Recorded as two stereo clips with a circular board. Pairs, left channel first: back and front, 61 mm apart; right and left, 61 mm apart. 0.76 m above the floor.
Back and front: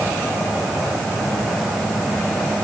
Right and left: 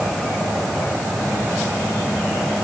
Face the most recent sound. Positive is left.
No sound to turn to.